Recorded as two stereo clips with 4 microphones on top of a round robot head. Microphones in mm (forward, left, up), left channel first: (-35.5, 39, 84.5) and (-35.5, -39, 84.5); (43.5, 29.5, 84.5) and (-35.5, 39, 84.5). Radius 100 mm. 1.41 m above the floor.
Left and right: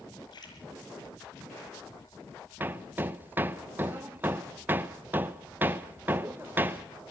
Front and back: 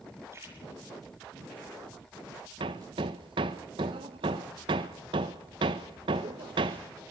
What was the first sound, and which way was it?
A splash, 115° left.